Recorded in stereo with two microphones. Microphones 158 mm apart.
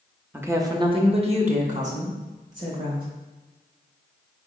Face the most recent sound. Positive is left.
turn(degrees=-60)  # may be behind; listen again after turning